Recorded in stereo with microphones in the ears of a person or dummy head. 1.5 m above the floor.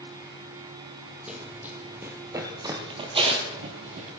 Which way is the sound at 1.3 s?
5° right (ahead or behind).